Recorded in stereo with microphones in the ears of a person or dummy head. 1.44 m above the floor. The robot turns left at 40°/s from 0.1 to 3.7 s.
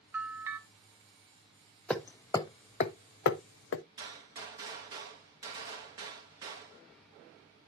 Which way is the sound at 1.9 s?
5° left (ahead or behind).